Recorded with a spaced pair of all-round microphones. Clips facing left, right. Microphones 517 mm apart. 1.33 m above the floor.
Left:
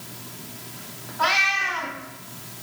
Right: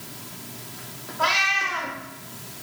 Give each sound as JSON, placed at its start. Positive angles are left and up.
{"t": 1.2, "sound": "a cat meowing", "side_deg": 10, "distance_m": 2.5}